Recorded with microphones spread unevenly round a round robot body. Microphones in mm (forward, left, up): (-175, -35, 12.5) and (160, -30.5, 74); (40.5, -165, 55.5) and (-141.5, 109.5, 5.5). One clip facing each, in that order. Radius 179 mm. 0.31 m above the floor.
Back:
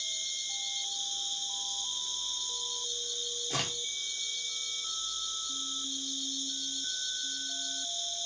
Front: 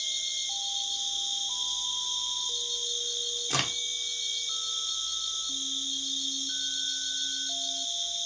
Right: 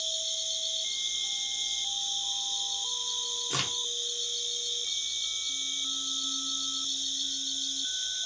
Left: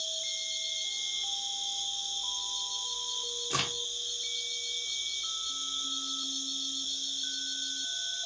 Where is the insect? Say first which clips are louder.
Front 2 dB, right 3 dB; 90° right, 1.3 m.